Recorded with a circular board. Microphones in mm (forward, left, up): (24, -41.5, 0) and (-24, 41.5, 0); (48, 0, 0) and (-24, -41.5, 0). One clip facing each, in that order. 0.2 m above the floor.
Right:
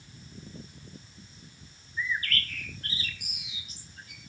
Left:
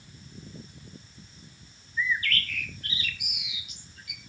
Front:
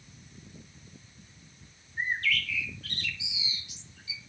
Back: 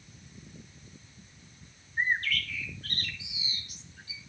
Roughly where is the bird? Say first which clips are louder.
Left 3 dB, back 1 dB; right.